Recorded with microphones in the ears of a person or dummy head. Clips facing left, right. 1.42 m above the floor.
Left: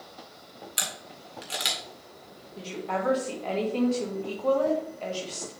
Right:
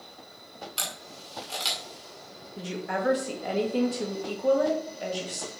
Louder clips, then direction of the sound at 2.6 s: Even; 20° right (ahead or behind).